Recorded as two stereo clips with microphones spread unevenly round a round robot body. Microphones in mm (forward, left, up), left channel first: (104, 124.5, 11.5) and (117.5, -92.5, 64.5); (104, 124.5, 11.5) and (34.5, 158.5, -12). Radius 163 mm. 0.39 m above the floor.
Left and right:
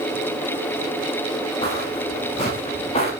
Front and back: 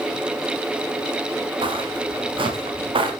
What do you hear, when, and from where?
1.6 s footsteps: 170° left, 5.5 m; by 3.1 s 165° left, 4.5 m